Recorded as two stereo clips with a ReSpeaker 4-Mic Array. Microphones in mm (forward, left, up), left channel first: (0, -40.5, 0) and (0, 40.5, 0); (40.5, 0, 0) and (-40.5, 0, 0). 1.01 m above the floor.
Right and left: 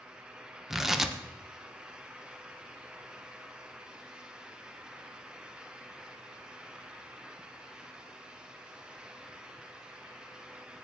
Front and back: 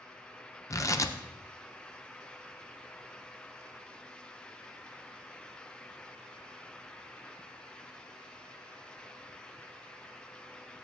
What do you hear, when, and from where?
0.7 s tearing paper: 5° left, 0.6 m